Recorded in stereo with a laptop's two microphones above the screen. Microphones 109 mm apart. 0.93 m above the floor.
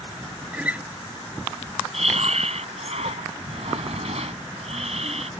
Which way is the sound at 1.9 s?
80° right.